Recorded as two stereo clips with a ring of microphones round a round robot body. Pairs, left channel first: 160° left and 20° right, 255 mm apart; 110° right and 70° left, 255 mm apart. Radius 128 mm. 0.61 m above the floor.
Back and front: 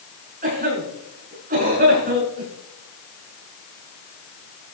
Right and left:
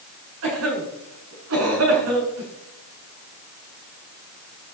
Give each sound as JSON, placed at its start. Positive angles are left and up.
{"t": 0.4, "sound": "a cough", "azimuth_deg": 35, "distance_m": 7.5}